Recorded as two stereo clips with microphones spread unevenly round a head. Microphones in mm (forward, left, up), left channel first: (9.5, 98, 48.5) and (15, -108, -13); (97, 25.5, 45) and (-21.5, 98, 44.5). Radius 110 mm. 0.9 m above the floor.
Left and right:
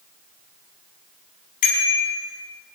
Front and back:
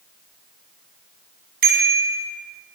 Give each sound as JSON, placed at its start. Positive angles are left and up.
{"t": 1.6, "sound": "a bicycle bell", "azimuth_deg": 145, "distance_m": 5.5}